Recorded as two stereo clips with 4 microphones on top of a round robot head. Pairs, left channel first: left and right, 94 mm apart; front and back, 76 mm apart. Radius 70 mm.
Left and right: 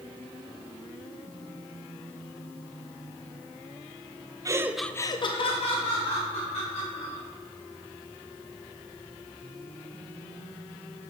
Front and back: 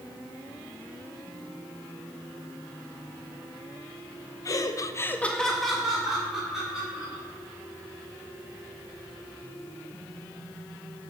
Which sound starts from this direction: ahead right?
Laughter, at 4.5 s.